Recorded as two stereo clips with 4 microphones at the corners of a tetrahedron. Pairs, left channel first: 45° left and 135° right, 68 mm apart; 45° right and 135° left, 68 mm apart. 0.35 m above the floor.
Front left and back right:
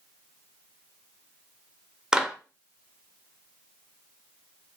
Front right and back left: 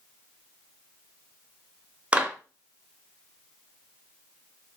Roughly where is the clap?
Behind.